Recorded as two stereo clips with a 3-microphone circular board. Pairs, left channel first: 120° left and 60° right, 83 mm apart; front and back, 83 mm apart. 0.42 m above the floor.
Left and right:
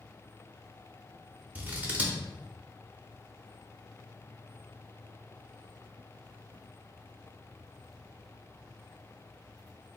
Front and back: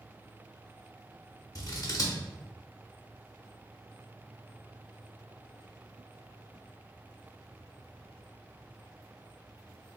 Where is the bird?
No bird in this recording.